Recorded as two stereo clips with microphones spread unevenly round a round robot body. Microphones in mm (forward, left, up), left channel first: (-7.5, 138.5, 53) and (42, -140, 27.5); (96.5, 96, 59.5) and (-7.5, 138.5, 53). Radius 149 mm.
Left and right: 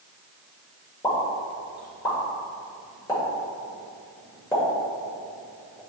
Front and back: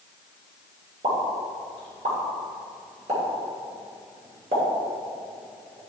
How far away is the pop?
About 2 m.